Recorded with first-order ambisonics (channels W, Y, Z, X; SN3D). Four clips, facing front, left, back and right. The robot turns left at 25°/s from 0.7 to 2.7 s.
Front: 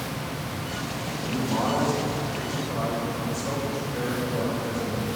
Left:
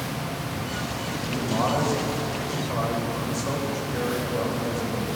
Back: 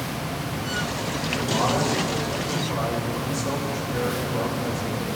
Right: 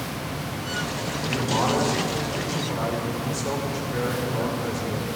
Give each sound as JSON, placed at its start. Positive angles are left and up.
{"t": 1.2, "sound": "a man speaking", "azimuth_deg": -75, "distance_m": 4.0}